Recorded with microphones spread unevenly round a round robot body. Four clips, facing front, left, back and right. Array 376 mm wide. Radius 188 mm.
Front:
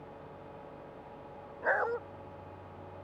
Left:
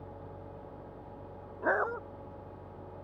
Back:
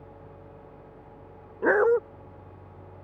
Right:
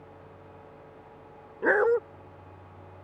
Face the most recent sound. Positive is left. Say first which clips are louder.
# right 8 dB, back 11 dB
turn(degrees=-160)